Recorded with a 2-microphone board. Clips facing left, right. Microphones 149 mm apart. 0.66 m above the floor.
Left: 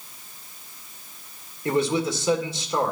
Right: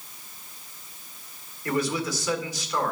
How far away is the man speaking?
About 2 m.